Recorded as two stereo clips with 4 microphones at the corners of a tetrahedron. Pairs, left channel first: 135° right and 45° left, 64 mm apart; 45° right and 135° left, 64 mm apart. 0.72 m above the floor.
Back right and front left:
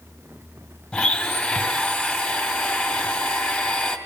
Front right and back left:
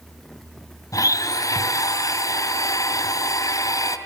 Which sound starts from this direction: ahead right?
A blender, at 0.9 s.